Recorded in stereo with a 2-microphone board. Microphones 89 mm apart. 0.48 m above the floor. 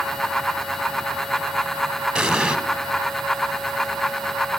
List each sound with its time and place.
2.1 s an explosion: 10° right (ahead or behind), 0.7 m